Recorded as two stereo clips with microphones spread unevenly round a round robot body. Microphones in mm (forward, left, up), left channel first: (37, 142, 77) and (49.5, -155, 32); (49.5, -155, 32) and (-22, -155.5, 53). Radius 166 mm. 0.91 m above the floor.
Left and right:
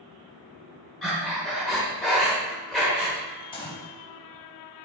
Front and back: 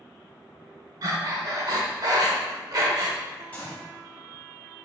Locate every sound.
1.0 s breathing: 175° left, 1.0 m
3.5 s a gunshot: 95° left, 0.8 m